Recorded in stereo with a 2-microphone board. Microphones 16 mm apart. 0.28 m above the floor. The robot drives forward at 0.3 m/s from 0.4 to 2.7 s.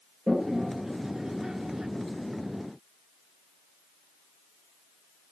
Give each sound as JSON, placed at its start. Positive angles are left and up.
{"t": 0.3, "sound": "a toilet flushing", "side_deg": -35, "distance_m": 0.8}